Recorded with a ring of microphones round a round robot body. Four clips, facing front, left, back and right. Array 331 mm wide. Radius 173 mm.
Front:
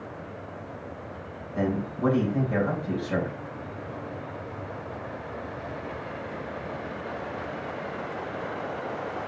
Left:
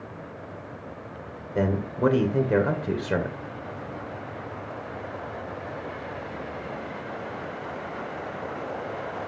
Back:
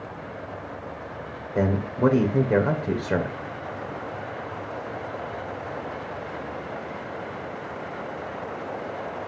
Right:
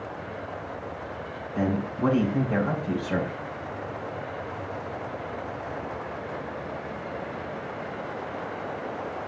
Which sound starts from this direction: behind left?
A man speaking, at 1.6 s.